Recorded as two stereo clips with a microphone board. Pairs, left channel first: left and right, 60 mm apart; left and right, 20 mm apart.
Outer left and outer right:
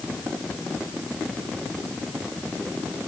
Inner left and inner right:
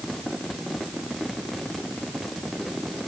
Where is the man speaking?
I don't hear a man speaking.